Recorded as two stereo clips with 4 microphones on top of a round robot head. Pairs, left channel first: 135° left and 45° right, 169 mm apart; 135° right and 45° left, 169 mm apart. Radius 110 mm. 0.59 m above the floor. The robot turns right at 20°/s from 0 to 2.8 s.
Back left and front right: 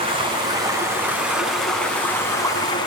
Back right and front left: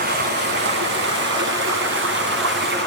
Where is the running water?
10° left, 6 m; by 2.9 s 65° left, 6 m.